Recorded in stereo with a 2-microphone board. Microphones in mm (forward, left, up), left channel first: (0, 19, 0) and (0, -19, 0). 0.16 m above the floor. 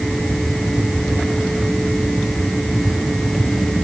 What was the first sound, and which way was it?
Only background noise.